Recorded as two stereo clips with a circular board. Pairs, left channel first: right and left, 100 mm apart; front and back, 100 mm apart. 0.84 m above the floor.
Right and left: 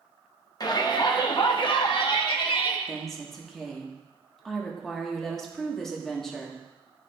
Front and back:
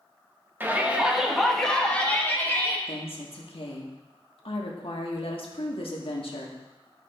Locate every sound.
0.6 s a shout: 120° right, 1.2 m; by 2.8 s 65° right, 1.7 m
2.9 s a woman speaking: 5° right, 1.7 m